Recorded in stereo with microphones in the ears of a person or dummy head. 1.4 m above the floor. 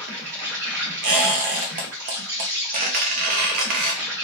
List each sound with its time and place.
0.0 s an insect: 10° right (ahead or behind), 1.8 m
1.0 s a squeak: 45° right (ahead or behind), 0.6 m